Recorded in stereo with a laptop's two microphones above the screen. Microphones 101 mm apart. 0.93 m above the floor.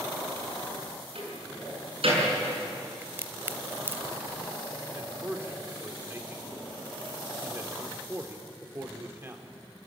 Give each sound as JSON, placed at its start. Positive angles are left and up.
{"t": 1.1, "sound": "a door slam", "side_deg": -70, "distance_m": 7.0}
{"t": 3.0, "sound": "a crack", "side_deg": -20, "distance_m": 0.8}
{"t": 4.9, "sound": "a man speaking", "side_deg": -25, "distance_m": 2.5}